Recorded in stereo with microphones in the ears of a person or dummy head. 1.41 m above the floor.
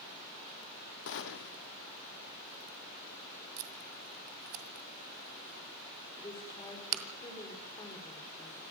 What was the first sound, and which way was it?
A gunshot, 60° left (ahead or behind).